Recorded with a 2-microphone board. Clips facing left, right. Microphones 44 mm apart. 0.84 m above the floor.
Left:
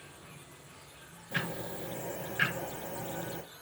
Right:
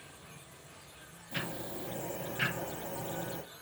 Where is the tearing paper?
No tearing paper in this recording.